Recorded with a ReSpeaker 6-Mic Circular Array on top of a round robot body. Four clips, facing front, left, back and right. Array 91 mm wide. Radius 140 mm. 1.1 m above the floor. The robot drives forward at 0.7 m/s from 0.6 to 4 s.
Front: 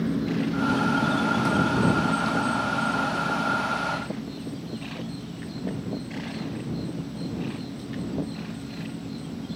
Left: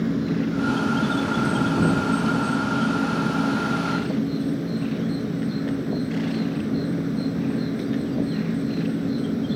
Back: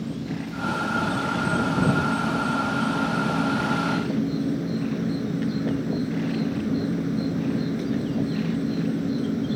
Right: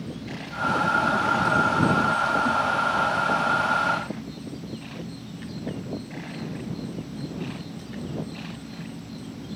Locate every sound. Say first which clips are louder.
0.0 s an insect: left 12 dB, front 5 dB; 65° left; by 9.6 s 125° left